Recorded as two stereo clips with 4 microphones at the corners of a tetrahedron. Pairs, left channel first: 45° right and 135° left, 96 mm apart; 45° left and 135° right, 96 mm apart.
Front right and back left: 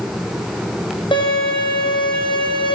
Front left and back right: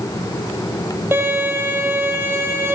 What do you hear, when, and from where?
1.1 s a violin: 70° right, 1.9 m